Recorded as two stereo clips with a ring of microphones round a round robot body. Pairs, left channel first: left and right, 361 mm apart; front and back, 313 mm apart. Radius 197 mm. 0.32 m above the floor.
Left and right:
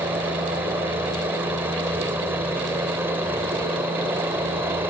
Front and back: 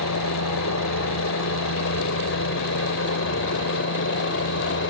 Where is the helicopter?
10° right.